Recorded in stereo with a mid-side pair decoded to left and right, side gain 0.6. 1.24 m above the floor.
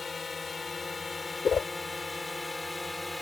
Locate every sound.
0.0 s a drone: 30° left; by 3.2 s 10° left
1.4 s a whoosh: 35° left